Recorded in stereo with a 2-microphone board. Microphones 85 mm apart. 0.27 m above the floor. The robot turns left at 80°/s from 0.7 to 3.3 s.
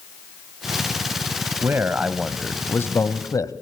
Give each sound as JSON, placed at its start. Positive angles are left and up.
{"t": 1.6, "sound": "a man speaking", "azimuth_deg": -130, "distance_m": 1.5}